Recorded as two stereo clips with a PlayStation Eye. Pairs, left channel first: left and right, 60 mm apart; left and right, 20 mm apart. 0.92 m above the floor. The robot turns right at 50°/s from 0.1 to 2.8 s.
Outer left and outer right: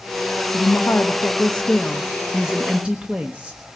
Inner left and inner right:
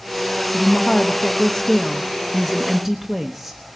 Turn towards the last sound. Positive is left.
turn(degrees=-150)